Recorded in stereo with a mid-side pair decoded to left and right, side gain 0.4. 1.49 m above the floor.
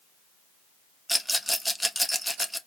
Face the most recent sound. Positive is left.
turn(degrees=0)